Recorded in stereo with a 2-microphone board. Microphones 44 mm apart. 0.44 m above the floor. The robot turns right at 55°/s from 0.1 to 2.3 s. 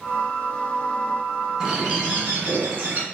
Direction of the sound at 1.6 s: 175° right.